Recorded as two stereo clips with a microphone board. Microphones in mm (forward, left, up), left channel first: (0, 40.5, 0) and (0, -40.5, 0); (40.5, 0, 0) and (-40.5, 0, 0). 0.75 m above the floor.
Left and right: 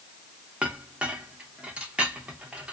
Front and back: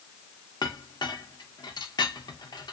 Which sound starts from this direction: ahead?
A clink, at 0.6 s.